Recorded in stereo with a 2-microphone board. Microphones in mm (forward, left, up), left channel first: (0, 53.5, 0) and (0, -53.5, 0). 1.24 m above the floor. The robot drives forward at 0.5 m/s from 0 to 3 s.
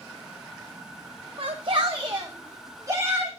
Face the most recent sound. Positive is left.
turn(degrees=-30)  # may be behind; listen again after turning